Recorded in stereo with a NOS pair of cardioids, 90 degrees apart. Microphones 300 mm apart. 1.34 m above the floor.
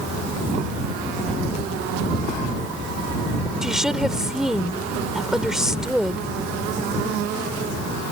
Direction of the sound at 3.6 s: Straight ahead.